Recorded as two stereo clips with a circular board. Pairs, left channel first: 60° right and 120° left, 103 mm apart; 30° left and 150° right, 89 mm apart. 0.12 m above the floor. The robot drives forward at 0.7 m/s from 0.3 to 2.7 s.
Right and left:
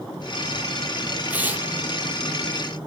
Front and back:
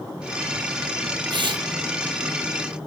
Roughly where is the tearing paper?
Behind.